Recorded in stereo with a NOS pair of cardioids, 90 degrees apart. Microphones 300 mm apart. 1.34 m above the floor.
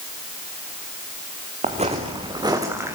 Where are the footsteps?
25° right, 4.5 m; by 3.0 s 10° right, 5 m.